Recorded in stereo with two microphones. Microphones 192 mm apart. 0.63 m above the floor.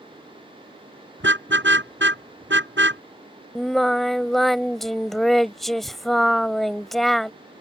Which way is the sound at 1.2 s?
85° right.